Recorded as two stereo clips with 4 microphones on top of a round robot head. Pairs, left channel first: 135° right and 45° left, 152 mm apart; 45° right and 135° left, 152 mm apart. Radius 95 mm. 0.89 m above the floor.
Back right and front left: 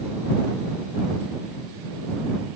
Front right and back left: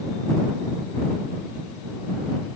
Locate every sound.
Only background noise.